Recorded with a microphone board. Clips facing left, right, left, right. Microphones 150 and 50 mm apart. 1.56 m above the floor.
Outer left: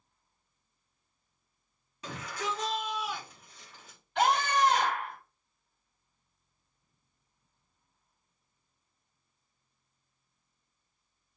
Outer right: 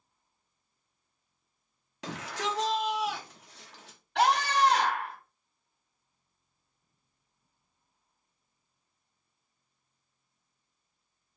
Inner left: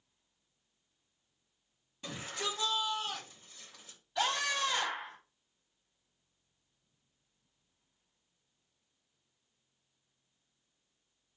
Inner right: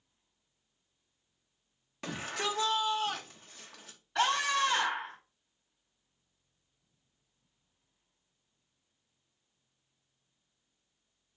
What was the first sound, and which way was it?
A shout, 85° right.